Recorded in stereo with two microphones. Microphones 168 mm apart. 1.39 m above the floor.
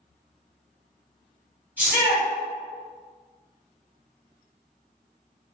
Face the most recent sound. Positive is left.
turn(degrees=-10)  # may be behind; listen again after turning